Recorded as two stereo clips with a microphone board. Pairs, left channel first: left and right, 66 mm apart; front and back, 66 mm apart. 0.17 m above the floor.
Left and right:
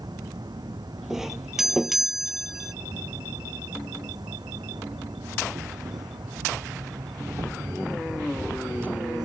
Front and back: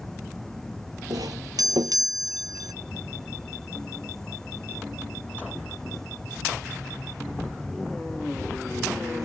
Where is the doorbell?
175° right.